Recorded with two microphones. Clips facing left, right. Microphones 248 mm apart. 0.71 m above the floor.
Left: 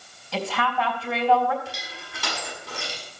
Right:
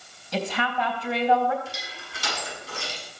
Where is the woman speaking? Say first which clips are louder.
Even; 20° right (ahead or behind), 4 m.